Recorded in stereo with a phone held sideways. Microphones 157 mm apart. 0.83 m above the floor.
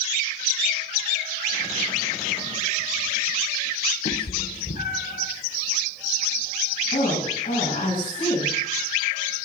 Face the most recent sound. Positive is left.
turn(degrees=55)  # may be behind; listen again after turning